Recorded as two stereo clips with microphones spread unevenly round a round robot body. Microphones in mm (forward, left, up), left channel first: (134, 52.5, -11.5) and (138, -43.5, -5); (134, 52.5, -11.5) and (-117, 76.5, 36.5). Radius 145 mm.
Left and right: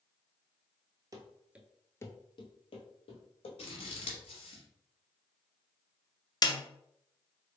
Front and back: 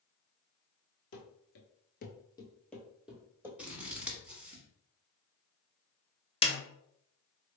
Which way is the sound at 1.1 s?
45° right.